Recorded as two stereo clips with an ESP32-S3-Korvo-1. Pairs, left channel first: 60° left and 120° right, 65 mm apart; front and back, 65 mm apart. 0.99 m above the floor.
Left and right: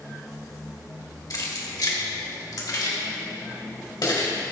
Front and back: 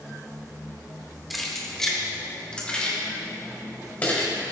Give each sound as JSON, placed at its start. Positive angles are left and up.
{"t": 1.3, "sound": "keys jangling", "azimuth_deg": 90, "distance_m": 1.6}